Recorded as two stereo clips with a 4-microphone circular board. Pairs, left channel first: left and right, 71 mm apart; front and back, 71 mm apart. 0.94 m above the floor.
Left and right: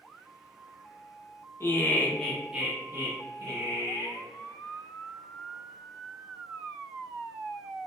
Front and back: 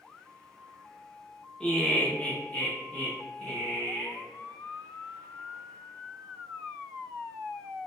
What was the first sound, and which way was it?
Laughter, 75° left.